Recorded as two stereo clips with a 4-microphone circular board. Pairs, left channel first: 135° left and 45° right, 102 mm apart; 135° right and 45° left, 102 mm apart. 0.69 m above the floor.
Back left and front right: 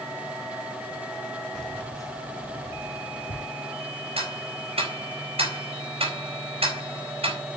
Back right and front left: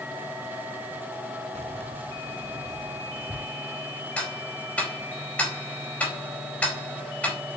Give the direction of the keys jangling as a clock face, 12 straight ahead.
10 o'clock.